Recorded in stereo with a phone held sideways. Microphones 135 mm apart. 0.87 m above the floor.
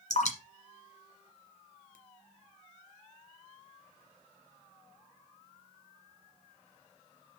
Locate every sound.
0.1 s dripping: 65° left (ahead or behind), 1.7 m